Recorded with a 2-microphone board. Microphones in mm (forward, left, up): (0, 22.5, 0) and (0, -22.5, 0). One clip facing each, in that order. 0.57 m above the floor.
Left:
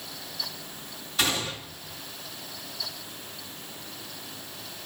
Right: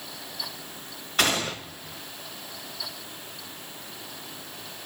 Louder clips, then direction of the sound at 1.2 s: Right 3 dB; 50° right (ahead or behind).